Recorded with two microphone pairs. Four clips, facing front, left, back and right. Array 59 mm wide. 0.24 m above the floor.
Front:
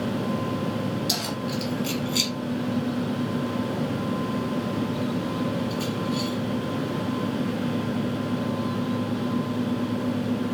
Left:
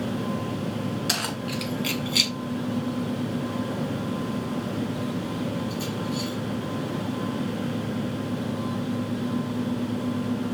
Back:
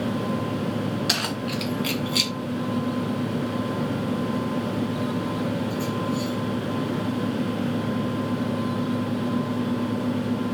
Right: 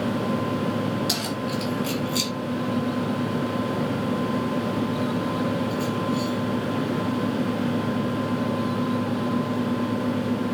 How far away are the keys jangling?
About 2 m.